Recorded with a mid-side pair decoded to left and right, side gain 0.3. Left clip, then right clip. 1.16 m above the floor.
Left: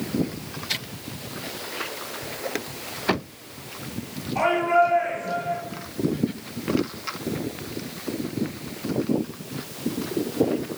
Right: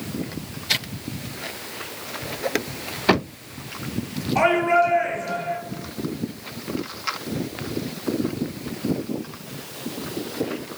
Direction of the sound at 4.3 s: 60° right.